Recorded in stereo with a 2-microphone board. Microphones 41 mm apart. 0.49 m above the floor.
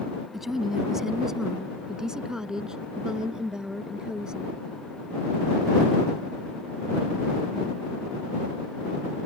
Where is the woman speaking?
5° right (ahead or behind); by 4.6 s 20° right (ahead or behind).